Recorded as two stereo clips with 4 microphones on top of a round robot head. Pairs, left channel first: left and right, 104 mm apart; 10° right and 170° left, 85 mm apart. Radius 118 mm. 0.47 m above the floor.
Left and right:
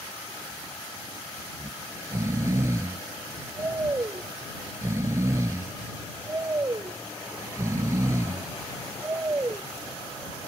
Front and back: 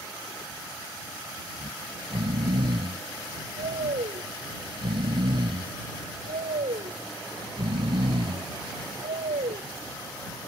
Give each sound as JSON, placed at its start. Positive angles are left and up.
{"t": 1.5, "sound": "snoring", "azimuth_deg": -155}